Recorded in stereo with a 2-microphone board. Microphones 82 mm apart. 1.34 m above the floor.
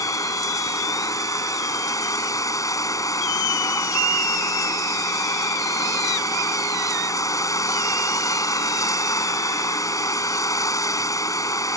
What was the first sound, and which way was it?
Running water, 45° left (ahead or behind).